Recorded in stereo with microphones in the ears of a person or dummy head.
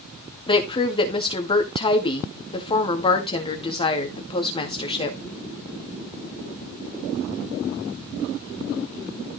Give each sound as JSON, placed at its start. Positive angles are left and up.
{"t": 0.5, "sound": "a woman speaking", "side_deg": 30, "distance_m": 1.8}